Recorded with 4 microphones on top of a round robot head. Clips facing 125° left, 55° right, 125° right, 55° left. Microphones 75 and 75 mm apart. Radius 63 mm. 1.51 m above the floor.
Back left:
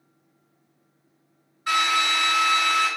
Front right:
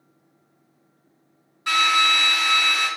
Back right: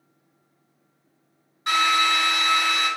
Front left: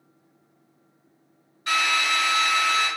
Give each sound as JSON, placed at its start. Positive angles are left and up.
{"t": 1.7, "sound": "a drill", "azimuth_deg": -70, "distance_m": 1.5}